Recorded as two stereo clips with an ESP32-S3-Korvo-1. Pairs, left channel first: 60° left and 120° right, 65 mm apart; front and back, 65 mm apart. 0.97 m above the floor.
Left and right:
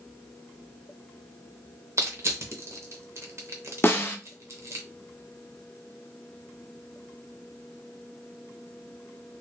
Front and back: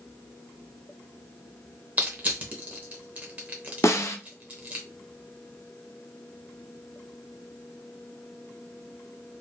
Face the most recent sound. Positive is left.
turn(degrees=15)